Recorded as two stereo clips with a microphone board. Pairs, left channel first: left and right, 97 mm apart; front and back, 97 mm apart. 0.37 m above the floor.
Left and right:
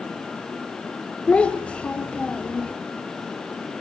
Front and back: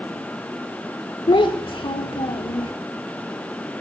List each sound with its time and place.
1.3 s a child speaking: 15° left, 1.0 m